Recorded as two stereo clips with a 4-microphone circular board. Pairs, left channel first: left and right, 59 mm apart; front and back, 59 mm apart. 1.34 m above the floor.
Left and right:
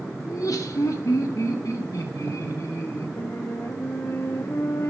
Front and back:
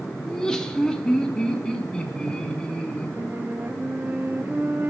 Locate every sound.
0.2 s laughter: 80° left, 1.6 m; by 3.1 s 70° left, 3.5 m
3.2 s a flute: 125° left, 0.7 m